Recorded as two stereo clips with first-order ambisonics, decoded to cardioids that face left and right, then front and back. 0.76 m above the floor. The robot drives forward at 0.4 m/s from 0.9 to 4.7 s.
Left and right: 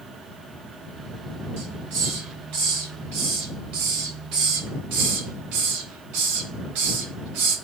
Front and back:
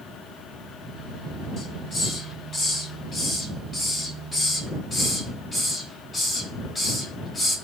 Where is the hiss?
65° right, 4.5 m; by 7.6 s 80° right, 4 m.